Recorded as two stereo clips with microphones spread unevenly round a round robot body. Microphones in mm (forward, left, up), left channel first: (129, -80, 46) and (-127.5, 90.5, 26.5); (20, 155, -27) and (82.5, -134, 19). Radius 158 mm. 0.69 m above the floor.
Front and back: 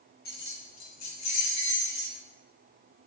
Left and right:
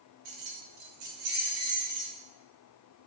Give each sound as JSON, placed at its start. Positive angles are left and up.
{"t": 0.2, "sound": "keys jangling", "azimuth_deg": -95, "distance_m": 1.6}